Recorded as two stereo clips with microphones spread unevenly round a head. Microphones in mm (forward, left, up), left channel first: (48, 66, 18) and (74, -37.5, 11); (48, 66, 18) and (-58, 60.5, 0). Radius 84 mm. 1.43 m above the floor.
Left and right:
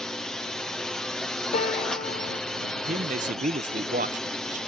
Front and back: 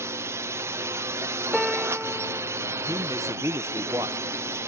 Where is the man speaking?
105° right.